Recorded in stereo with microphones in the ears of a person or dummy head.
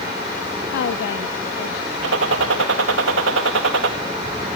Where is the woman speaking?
70° left (ahead or behind), 0.7 m.